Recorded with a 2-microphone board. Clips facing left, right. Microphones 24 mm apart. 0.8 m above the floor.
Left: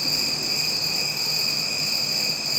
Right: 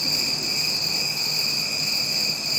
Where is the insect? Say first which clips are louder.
Even; 15° right (ahead or behind), 1.3 m.